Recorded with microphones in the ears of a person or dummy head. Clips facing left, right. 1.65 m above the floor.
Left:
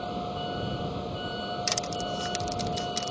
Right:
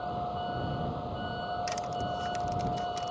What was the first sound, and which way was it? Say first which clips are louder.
A vehicle: left 1 dB; 35° left (ahead or behind).